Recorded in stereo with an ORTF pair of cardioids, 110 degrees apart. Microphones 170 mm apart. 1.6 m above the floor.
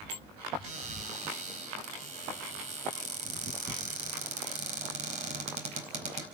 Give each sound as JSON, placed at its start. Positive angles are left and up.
{"t": 0.6, "sound": "a cupboard door", "azimuth_deg": -45, "distance_m": 4.5}